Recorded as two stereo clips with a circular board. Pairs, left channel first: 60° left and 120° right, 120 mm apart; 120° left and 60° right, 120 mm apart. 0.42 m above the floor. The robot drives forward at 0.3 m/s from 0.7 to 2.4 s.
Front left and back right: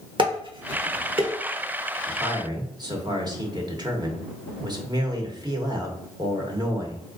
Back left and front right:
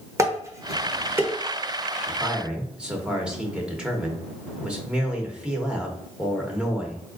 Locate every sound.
0.2 s dishes clattering: 110° right, 0.9 m; by 1.3 s 125° right, 1.0 m
2.1 s a man speaking: 130° right, 0.9 m; by 7.0 s 135° right, 1.0 m